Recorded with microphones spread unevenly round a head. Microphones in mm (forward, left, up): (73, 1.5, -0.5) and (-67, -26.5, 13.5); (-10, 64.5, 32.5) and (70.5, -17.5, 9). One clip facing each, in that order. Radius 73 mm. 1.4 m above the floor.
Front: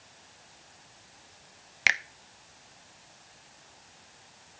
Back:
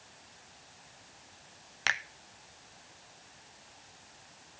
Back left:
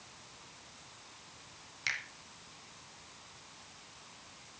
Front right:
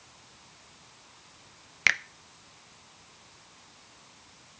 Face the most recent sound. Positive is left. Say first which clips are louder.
# front 3 dB, front right 12 dB
turn(degrees=-60)